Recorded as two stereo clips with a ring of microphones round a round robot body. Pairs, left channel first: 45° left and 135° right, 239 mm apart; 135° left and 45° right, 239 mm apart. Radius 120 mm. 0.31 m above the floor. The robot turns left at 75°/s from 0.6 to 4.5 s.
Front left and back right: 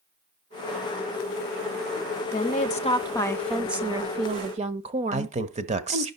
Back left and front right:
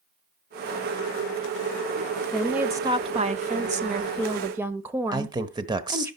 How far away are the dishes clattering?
No dishes clattering in this recording.